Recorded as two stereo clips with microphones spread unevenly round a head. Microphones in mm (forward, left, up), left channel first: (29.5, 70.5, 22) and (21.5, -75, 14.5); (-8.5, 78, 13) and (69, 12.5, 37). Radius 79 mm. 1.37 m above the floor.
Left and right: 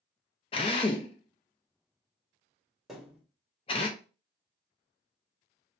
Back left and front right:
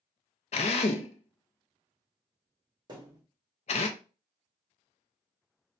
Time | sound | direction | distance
0.5 | a drill | 130° left | 0.6 m
2.9 | a thud | 5° right | 1.5 m